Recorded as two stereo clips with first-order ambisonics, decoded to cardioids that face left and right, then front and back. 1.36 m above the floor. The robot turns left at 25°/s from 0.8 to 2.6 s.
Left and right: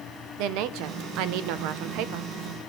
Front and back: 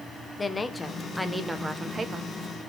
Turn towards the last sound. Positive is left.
turn(degrees=-120)